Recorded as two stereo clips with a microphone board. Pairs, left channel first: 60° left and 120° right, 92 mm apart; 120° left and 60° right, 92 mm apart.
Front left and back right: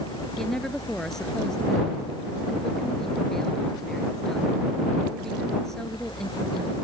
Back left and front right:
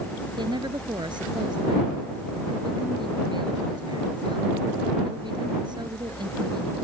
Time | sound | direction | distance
0.4 | a woman speaking | 25° right | ?